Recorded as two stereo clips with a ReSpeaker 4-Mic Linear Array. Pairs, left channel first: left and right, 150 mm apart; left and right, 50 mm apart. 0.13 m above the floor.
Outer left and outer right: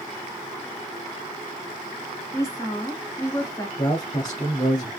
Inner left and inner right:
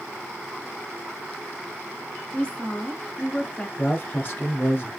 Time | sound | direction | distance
2.3 | a woman speaking | 20° left (ahead or behind) | 1.2 m
3.8 | a man speaking | 30° left (ahead or behind) | 1.6 m